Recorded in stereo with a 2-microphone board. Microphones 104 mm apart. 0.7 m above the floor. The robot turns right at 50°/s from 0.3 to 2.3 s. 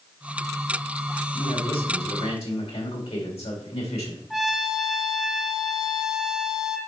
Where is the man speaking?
50° left, 2 m; by 4.2 s 100° left, 2 m.